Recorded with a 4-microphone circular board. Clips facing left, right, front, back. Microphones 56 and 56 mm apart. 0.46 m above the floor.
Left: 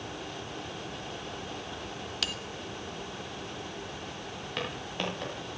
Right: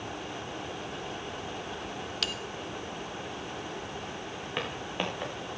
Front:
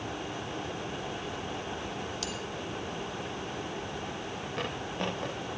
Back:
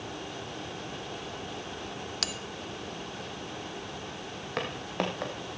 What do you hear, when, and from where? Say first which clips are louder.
2.2 s a bell: even, even; straight behind, 0.7 m
4.6 s footsteps: right 1 dB, back 3 dB; 165° right, 4 m